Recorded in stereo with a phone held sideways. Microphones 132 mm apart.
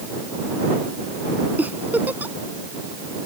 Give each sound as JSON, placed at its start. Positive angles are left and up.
{"t": 1.6, "sound": "a giggle", "side_deg": -10}